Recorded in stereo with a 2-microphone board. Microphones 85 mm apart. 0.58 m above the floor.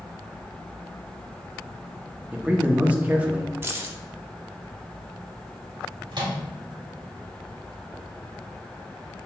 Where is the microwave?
60° right (ahead or behind), 1.1 m.